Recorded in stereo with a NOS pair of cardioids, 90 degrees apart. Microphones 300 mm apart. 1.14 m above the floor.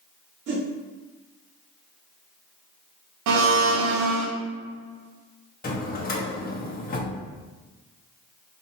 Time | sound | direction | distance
0.5 | a whoosh | 50° right | 1.2 m
3.3 | a blender | 65° right | 0.7 m
5.6 | a drawer | 30° left | 1.0 m